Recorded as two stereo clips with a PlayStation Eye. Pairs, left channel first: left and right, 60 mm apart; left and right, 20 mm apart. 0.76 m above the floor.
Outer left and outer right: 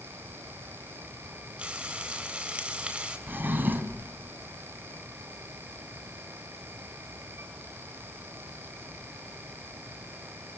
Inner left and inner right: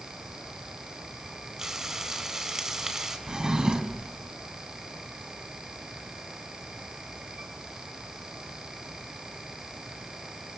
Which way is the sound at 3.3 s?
35° right (ahead or behind).